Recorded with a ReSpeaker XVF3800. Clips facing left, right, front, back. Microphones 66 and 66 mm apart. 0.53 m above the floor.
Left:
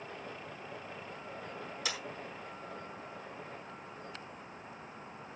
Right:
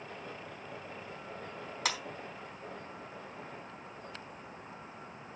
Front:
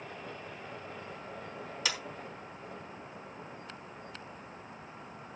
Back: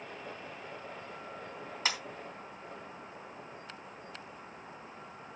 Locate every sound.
1.9 s a clap: 125° right, 3.5 m